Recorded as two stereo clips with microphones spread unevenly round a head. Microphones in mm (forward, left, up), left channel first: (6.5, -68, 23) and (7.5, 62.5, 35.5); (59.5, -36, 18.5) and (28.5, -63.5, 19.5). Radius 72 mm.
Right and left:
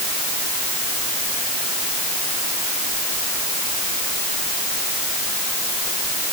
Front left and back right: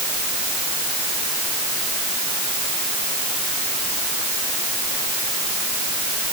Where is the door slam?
No door slam in this recording.